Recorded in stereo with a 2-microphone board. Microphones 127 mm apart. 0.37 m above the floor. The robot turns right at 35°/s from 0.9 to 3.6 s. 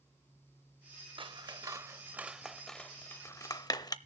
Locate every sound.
1.2 s scissors: 40° right (ahead or behind), 0.5 m; by 4.0 s 30° left (ahead or behind), 0.5 m